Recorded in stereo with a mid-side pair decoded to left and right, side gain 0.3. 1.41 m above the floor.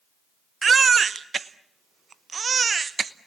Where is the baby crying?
55° right, 0.9 m.